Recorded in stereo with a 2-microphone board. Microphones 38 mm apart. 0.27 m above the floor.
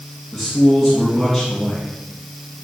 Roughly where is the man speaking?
Centre.